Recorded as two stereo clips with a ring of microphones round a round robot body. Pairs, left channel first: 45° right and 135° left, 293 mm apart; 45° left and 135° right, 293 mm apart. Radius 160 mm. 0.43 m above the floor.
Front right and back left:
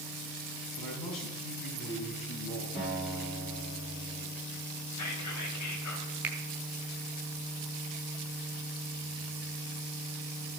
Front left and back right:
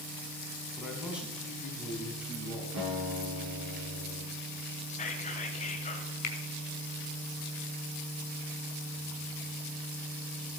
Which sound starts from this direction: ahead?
Whispering, at 4.9 s.